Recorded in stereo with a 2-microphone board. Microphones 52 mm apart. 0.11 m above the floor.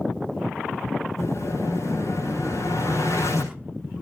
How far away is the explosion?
About 6.5 m.